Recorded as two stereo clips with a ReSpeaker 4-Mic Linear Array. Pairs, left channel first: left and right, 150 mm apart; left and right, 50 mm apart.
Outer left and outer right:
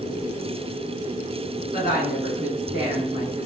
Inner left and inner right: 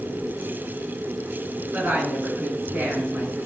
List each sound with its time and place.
1.7 s a woman speaking: 40° right (ahead or behind), 2 m